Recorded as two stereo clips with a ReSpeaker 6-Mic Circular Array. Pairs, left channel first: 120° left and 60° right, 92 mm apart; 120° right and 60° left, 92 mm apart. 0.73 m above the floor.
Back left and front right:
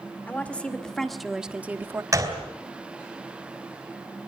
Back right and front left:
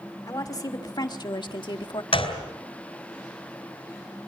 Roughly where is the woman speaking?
Behind.